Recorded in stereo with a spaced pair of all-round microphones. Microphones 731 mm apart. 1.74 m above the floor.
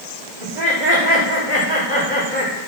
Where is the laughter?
70° right (ahead or behind), 3.5 m.